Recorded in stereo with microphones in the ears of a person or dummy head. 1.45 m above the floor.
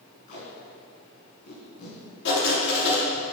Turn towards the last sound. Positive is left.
turn(degrees=65)  # may be behind; listen again after turning